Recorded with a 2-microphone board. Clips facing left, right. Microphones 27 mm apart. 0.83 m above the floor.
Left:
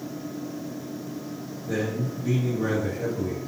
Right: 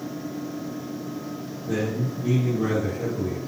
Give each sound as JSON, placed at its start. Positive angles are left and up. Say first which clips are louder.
{"t": 1.7, "sound": "a man speaking", "louder": "right 1 dB", "side_deg": -45, "distance_m": 0.9}